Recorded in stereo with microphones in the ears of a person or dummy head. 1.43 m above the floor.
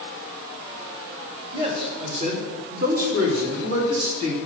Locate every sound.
1.5 s a man speaking: 30° right (ahead or behind), 3 m; by 4.4 s 80° right, 3 m